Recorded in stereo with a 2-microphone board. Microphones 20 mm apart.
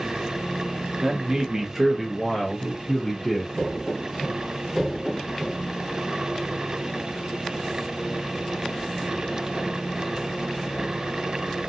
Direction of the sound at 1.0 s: 30° right (ahead or behind).